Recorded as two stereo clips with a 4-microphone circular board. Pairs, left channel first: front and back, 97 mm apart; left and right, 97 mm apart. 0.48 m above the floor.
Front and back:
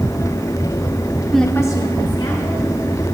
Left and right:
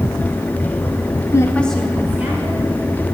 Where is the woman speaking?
90° left, 0.8 m; by 3.0 s 30° right, 2.5 m.